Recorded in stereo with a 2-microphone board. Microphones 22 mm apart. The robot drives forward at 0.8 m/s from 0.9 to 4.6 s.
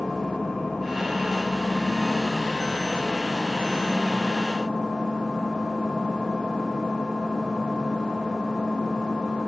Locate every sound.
0.0 s an engine running: 50° left (ahead or behind), 6.5 m; by 9.5 s 35° left (ahead or behind), 8.5 m